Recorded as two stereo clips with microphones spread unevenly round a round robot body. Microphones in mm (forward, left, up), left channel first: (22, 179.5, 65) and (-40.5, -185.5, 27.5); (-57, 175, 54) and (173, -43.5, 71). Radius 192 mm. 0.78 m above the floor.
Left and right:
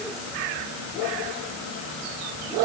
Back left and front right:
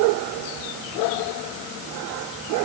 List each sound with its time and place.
Only background noise.